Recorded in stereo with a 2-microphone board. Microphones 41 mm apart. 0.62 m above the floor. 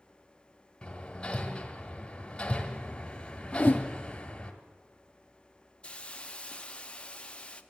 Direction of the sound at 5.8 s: 25° left (ahead or behind).